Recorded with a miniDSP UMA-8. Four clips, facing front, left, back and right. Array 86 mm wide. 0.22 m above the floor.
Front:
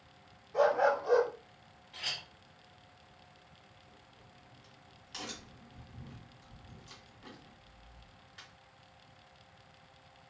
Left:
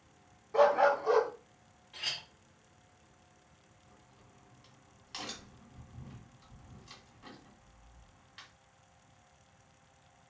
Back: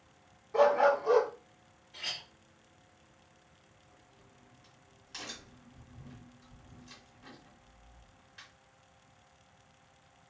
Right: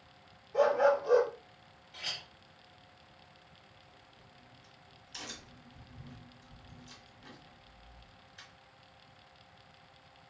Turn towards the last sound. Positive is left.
turn(degrees=85)